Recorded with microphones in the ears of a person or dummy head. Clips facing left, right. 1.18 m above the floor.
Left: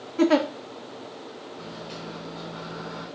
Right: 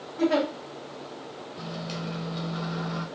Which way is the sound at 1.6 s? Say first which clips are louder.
Right 5 dB; 60° right (ahead or behind).